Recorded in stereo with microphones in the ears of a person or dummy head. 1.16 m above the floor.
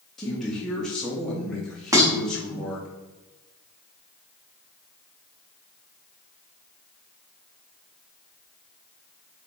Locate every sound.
0.2 s a man speaking: centre (ahead or behind), 0.5 m
1.9 s dishes clattering: 15° right (ahead or behind), 1.0 m